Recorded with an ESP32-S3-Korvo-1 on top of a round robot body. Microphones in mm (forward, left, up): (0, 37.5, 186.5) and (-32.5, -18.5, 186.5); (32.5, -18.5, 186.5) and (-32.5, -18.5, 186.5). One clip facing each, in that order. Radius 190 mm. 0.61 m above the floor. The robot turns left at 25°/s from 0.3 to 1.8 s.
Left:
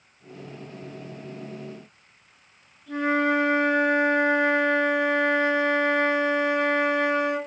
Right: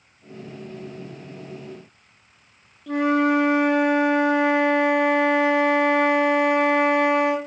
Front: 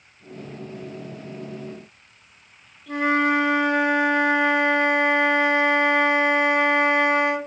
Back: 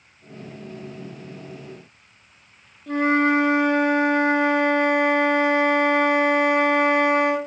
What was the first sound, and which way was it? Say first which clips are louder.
A flute: right 4 dB, back 2 dB; 125° right.